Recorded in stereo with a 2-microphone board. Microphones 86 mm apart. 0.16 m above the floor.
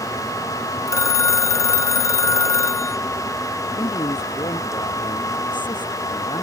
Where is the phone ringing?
40° left (ahead or behind).